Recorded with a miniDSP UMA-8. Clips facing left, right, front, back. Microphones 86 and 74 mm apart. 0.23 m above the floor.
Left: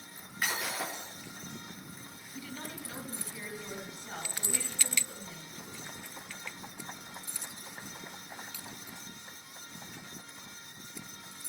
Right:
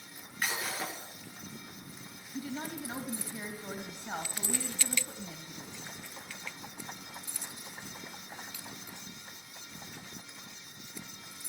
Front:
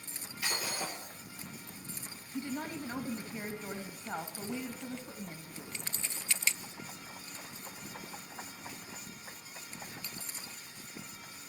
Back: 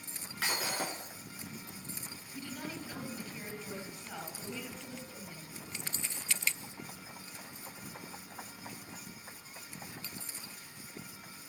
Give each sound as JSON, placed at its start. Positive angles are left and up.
{"t": 0.4, "sound": "breaking glass", "azimuth_deg": 175, "distance_m": 7.5}
{"t": 2.3, "sound": "a woman speaking", "azimuth_deg": -35, "distance_m": 2.0}